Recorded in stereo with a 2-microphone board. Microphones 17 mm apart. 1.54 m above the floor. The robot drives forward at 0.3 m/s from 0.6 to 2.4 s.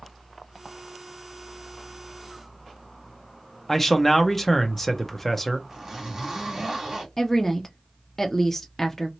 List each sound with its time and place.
3.7 s a man speaking: 15° left (ahead or behind), 0.8 m
5.7 s a zipper: 30° right (ahead or behind), 2.0 m
7.2 s a woman speaking: 20° left (ahead or behind), 0.5 m